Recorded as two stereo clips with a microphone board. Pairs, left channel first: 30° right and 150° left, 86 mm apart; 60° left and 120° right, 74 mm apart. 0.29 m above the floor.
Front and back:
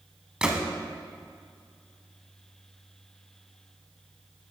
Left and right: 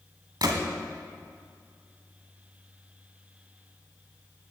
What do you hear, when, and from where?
0.4 s a gunshot: 130° right, 0.9 m